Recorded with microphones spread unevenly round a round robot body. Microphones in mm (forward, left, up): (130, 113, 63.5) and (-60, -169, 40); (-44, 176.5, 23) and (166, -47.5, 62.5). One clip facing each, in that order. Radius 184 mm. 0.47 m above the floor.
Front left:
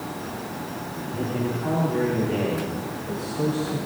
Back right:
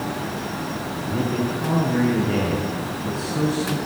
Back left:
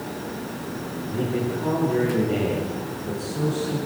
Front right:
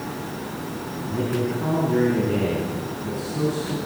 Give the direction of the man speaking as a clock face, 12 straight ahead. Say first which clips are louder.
Back right 3 dB, front right 1 dB; 4 o'clock.